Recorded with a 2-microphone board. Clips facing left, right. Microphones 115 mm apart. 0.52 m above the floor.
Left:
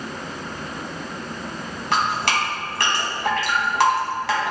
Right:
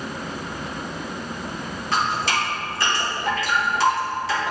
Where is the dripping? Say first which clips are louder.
Left 1 dB; 85° left, 1.7 m.